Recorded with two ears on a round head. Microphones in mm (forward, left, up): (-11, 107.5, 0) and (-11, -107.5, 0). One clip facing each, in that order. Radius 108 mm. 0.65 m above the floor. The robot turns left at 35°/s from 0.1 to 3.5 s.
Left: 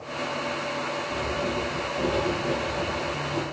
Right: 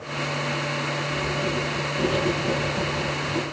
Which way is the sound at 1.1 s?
5° right.